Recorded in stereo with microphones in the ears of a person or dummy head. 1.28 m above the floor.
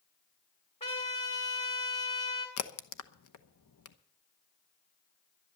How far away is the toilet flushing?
I don't hear a toilet flushing.